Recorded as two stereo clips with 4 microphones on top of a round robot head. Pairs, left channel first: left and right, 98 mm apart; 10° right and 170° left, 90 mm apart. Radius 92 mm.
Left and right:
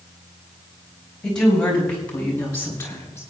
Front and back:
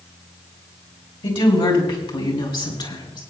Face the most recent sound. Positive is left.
turn(degrees=20)